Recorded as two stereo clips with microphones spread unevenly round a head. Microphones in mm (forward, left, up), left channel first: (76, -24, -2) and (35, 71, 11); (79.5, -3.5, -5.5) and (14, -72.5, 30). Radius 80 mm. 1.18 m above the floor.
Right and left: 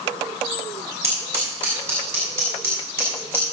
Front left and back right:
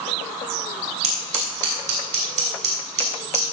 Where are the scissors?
170° right, 6 m.